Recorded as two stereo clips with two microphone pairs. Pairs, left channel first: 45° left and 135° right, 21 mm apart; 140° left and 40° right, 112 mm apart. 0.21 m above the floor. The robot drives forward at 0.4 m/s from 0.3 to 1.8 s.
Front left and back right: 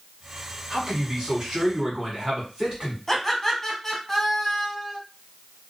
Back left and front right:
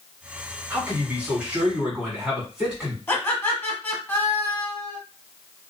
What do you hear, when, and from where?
0.7 s a man speaking: 105° right, 2 m; by 3.0 s 120° right, 2 m
3.1 s laughter: 115° left, 1.3 m